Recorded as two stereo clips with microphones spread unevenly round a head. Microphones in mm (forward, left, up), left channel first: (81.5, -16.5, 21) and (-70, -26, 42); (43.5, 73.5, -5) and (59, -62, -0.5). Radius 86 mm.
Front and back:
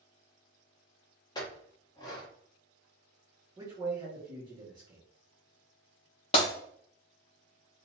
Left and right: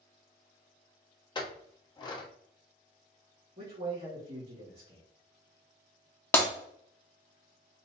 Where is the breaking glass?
40° left, 0.9 m.